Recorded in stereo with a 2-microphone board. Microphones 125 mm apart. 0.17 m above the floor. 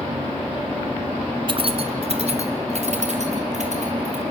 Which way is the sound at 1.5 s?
45° right (ahead or behind).